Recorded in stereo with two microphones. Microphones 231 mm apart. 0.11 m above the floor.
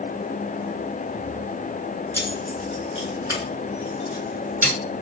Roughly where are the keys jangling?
Centre.